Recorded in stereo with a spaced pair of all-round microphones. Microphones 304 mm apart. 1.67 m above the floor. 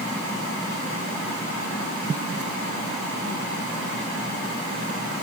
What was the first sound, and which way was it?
Only background noise.